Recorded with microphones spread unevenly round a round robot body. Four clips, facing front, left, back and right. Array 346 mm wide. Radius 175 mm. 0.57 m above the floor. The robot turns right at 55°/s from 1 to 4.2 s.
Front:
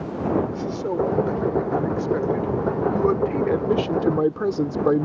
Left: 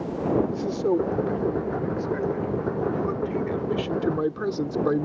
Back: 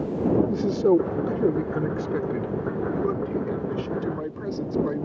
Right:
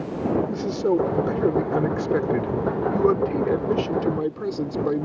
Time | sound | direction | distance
0.5 | a man speaking | 170° right | ?